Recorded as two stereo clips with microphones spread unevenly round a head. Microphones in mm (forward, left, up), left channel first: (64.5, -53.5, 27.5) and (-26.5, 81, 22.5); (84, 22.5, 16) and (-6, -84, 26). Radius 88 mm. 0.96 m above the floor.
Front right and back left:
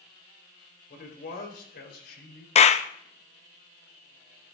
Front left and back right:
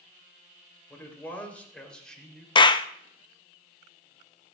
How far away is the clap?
About 0.8 m.